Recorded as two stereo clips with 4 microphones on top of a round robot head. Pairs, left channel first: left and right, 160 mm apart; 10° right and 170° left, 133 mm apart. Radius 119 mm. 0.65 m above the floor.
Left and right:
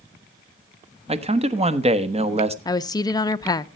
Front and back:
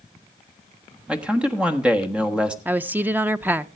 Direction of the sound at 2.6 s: 115° left.